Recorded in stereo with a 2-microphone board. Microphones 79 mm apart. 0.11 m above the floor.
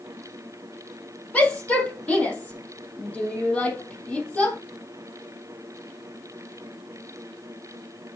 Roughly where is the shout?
Centre.